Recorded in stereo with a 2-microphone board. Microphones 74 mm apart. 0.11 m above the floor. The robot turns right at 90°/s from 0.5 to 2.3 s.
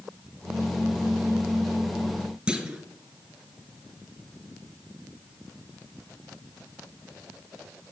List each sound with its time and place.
2.5 s a clunk: 15° right (ahead or behind), 1.2 m